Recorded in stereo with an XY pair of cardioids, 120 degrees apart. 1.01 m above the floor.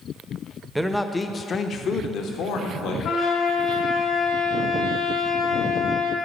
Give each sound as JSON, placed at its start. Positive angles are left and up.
{"t": 0.8, "sound": "a man speaking", "azimuth_deg": -5, "distance_m": 0.6}
{"t": 3.0, "sound": "a trumpet", "azimuth_deg": 70, "distance_m": 1.4}